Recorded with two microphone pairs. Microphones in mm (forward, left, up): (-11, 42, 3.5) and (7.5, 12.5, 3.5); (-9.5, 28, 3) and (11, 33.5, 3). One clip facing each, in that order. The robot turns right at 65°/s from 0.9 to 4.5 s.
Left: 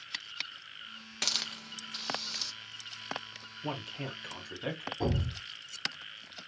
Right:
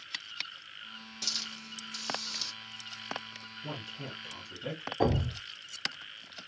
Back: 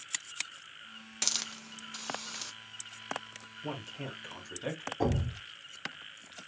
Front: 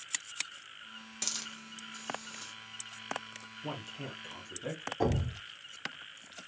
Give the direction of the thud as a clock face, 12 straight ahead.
2 o'clock.